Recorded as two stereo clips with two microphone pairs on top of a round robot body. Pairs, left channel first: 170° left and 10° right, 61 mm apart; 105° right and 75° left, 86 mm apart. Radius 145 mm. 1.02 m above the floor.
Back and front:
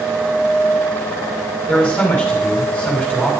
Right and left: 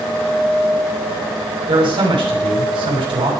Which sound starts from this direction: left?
A man speaking, at 1.7 s.